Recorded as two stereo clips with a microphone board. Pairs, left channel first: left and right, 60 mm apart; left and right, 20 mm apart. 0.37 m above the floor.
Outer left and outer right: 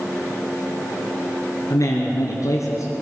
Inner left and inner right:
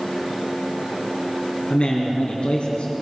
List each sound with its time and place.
1.7 s a man speaking: 70° left (ahead or behind), 4 m